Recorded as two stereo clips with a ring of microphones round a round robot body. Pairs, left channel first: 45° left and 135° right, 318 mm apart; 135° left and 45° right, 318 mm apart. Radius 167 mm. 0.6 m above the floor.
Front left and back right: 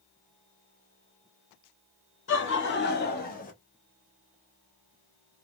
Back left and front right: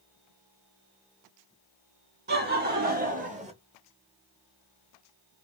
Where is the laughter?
5° left, 1.8 m.